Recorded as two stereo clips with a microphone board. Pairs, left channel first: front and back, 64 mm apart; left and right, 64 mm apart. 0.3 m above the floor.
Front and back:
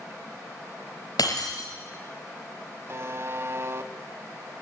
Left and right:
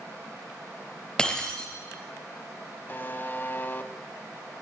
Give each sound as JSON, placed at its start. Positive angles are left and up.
{"t": 1.2, "sound": "breaking glass", "azimuth_deg": 15, "distance_m": 4.0}
{"t": 2.9, "sound": "a buzzer", "azimuth_deg": 145, "distance_m": 1.4}